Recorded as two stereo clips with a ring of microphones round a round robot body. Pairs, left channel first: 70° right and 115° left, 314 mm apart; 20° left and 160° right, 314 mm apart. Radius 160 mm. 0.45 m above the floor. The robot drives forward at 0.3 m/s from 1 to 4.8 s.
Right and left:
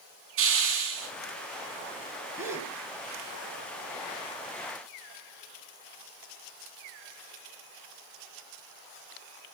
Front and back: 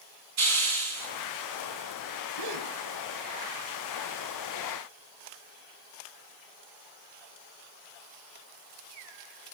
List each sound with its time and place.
0.4 s a hiss: 160° left, 5 m
2.4 s a gasp: 165° right, 1.7 m